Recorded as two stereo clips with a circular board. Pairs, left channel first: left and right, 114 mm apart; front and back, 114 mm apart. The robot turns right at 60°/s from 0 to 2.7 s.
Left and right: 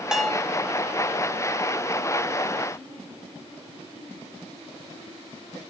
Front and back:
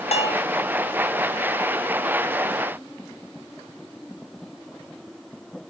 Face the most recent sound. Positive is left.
turn(degrees=150)